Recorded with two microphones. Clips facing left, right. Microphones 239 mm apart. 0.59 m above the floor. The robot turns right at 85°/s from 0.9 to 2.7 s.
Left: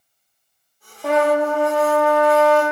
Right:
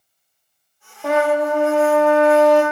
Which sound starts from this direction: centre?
A trumpet, at 1.0 s.